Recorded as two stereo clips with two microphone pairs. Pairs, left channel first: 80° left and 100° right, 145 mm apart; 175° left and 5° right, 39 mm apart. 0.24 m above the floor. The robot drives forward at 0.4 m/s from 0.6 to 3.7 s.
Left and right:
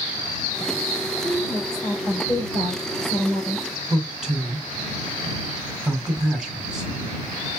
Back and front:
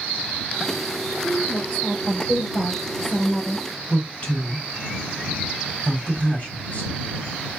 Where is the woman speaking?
165° left, 4 m; by 3.6 s 170° left, 4.5 m.